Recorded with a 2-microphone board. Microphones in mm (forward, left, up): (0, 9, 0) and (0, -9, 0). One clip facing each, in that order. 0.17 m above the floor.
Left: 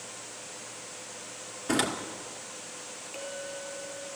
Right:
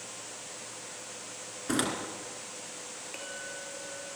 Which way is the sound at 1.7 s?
5° left (ahead or behind).